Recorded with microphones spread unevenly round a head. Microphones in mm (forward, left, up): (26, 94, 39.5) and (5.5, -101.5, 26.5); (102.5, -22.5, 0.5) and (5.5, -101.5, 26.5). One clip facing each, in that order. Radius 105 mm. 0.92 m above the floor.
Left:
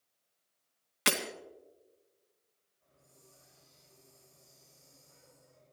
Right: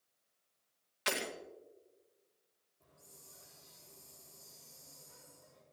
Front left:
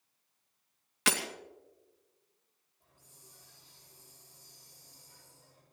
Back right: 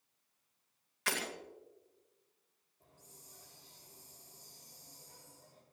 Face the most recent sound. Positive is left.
turn(degrees=-95)